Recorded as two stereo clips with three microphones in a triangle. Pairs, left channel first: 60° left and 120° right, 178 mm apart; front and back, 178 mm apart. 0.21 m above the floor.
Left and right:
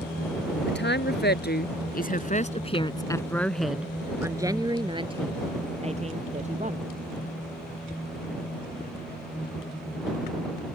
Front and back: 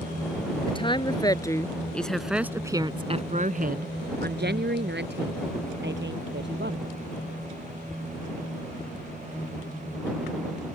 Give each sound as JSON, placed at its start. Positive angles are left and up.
{"t": 0.7, "sound": "a woman speaking", "azimuth_deg": 60}